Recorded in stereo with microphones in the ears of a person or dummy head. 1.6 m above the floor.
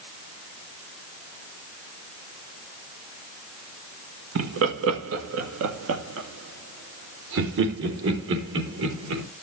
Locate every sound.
4.3 s laughter: 70° right (ahead or behind), 1.3 m; by 9.2 s 75° right (ahead or behind), 3.5 m